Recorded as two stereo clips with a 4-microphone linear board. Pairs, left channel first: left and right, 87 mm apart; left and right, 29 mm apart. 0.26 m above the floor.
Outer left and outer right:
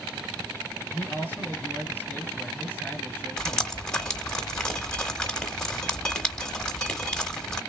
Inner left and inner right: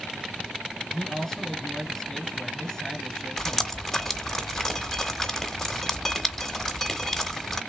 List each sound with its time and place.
0.9 s a man speaking: 15° left (ahead or behind), 1.4 m
3.4 s dripping: 10° left (ahead or behind), 1.0 m